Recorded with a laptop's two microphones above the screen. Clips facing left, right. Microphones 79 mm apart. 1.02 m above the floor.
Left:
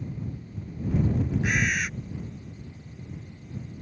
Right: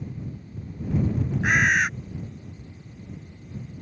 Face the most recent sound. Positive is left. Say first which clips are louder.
# right 10 dB
turn(degrees=-50)  # may be behind; listen again after turning